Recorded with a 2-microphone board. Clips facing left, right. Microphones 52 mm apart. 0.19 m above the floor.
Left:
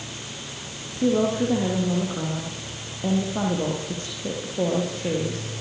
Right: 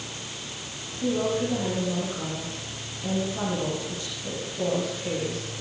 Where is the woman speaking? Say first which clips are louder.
Left 4 dB; 40° left (ahead or behind), 9 m.